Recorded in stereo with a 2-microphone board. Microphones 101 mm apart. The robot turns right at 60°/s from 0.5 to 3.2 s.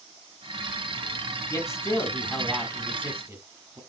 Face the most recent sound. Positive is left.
turn(degrees=-140)